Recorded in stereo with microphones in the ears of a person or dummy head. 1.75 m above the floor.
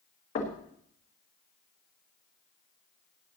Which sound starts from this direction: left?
Knocking, at 0.3 s.